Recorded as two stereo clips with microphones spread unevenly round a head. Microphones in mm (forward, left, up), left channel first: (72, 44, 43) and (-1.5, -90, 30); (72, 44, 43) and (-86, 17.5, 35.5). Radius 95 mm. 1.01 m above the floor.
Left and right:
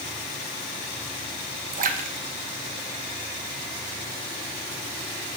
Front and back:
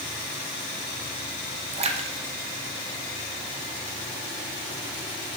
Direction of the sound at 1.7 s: 125° right.